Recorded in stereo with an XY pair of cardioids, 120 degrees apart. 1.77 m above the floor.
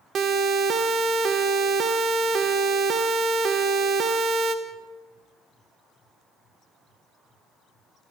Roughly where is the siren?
Ahead right.